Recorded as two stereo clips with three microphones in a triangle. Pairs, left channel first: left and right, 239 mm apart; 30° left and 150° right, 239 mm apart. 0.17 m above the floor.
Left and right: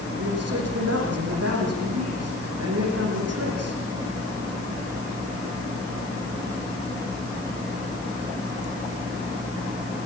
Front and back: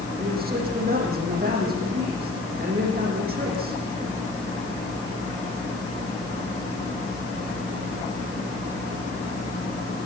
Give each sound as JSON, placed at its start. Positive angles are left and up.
{"t": 0.2, "sound": "a man speaking", "azimuth_deg": -100, "distance_m": 9.5}